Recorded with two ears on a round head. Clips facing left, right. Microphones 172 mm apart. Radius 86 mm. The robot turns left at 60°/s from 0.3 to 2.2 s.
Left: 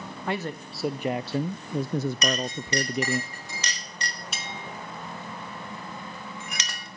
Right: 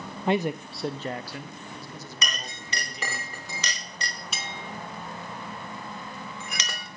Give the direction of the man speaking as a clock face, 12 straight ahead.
5 o'clock.